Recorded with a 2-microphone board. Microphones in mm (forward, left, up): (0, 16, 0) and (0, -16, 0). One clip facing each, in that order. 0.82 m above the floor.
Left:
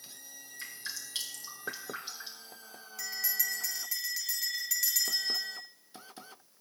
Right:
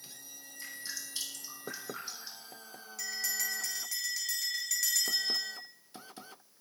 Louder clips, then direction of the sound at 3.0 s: Even; 5° left (ahead or behind).